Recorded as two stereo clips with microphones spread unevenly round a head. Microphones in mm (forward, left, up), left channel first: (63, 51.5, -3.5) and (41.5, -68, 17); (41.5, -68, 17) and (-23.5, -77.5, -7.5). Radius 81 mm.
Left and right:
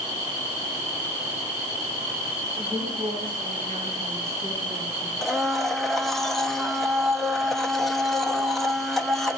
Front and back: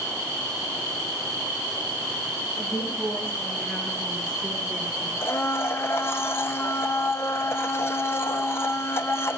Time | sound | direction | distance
2.6 | a woman speaking | 55° right | 5.5 m
5.2 | a blender | 15° right | 1.0 m